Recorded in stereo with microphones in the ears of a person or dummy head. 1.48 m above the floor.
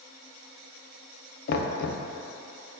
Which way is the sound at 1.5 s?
55° left (ahead or behind).